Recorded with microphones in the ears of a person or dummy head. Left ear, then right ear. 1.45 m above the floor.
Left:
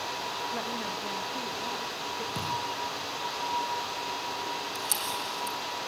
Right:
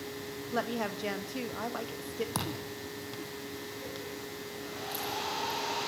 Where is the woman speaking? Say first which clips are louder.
Left 1 dB; 80° right, 1.5 m.